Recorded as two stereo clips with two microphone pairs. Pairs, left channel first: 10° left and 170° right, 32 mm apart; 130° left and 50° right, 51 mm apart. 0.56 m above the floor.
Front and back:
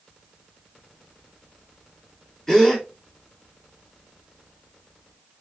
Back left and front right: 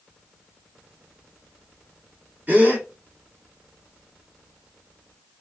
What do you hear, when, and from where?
2.5 s a gasp: 70° right, 1.5 m